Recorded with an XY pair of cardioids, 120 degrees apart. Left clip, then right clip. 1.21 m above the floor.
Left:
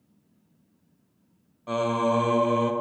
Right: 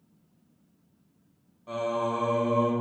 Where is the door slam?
No door slam in this recording.